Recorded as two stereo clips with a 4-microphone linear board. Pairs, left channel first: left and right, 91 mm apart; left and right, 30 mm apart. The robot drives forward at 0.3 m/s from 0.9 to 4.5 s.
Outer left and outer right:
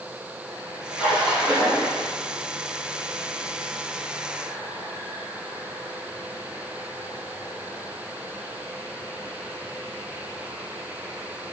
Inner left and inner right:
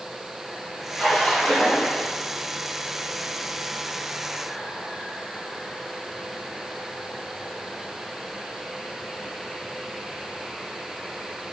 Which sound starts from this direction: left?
A splash, at 0.9 s.